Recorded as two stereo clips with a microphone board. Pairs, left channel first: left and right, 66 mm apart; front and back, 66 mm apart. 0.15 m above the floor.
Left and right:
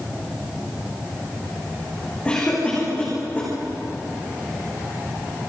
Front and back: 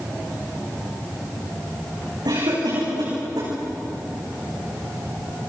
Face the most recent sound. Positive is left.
turn(degrees=160)